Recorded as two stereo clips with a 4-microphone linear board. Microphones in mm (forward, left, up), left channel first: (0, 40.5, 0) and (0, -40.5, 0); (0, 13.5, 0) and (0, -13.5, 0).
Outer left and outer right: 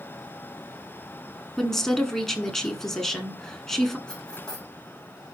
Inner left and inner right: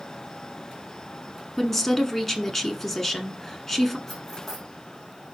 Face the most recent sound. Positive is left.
turn(degrees=10)  # may be behind; listen again after turning